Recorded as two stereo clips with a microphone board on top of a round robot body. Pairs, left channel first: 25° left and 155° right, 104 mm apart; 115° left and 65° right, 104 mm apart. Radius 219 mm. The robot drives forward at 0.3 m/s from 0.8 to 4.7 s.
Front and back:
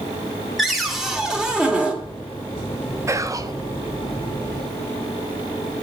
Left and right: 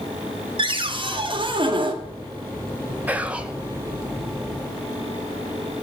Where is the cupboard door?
70° right, 2 m; by 2.0 s 80° right, 2.0 m.